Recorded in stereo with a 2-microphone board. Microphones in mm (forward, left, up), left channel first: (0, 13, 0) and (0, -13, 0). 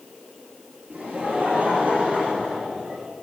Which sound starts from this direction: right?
Laughter, at 0.9 s.